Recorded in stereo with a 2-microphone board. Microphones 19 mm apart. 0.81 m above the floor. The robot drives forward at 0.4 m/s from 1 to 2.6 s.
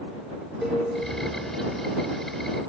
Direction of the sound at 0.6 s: 35° right (ahead or behind).